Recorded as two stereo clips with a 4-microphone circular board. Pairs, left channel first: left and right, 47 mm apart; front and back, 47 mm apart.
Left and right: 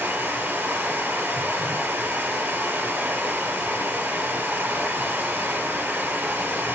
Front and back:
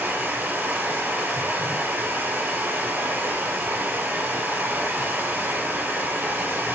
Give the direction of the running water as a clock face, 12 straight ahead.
4 o'clock.